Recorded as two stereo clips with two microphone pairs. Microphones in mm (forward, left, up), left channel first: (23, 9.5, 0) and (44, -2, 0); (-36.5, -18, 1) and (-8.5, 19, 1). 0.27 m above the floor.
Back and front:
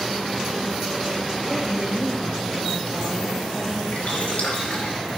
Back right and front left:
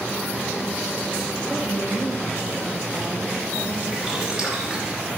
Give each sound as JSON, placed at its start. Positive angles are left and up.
{"t": 1.5, "sound": "a woman speaking", "azimuth_deg": 80, "distance_m": 1.2}
{"t": 3.9, "sound": "boiling", "azimuth_deg": 130, "distance_m": 2.5}